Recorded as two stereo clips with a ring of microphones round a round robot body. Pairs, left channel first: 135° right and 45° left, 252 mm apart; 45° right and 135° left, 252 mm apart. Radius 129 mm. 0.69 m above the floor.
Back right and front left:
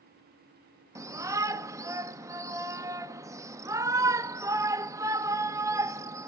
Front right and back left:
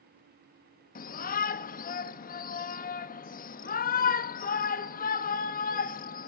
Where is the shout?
25° right, 0.7 m.